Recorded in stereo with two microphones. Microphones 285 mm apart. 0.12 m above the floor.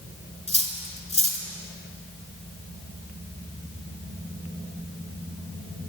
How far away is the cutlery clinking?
About 0.9 m.